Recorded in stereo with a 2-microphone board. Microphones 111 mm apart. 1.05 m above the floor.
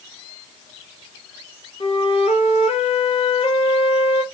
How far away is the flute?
About 0.7 m.